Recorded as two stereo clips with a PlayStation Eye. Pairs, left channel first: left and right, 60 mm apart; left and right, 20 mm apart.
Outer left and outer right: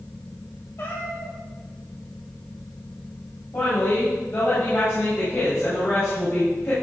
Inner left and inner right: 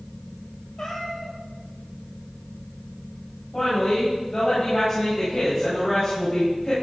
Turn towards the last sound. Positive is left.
turn(degrees=55)  # may be behind; listen again after turning